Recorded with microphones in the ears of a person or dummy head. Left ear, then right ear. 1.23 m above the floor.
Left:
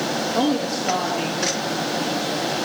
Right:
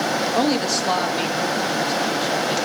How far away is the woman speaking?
About 1.3 m.